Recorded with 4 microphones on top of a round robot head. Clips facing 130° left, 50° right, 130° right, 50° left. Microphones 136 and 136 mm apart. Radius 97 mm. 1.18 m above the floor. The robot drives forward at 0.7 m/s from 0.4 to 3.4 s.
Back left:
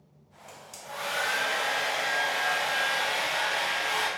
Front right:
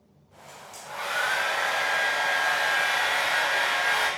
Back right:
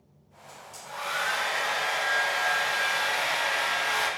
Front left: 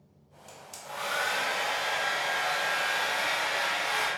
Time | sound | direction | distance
0.5 | a hair dryer | 60° left | 0.7 m